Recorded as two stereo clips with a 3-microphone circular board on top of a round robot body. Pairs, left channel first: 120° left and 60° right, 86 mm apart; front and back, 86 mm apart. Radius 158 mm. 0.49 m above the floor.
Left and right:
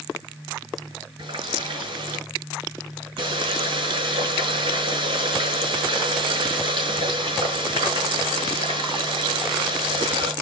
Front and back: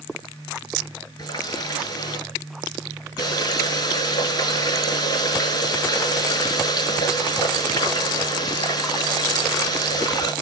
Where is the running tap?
35° right, 5.5 m.